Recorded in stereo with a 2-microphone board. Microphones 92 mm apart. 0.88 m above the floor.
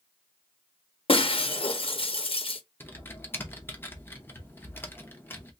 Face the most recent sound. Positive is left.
turn(degrees=25)  # may be behind; listen again after turning